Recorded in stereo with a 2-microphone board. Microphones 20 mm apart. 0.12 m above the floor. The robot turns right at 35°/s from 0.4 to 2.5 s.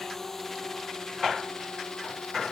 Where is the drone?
20° left (ahead or behind); by 2.5 s 65° left (ahead or behind).